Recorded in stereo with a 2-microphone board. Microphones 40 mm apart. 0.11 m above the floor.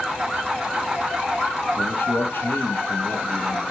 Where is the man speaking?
55° left (ahead or behind), 3.5 m.